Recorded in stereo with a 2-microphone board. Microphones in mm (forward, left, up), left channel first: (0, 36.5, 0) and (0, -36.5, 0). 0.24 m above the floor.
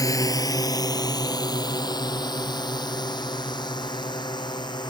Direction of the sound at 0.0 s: 50° left (ahead or behind).